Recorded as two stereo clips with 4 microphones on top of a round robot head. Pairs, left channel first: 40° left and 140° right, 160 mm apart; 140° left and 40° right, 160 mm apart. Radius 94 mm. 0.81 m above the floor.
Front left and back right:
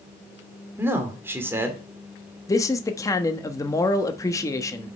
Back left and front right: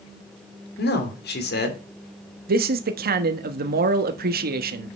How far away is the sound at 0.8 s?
About 2.5 m.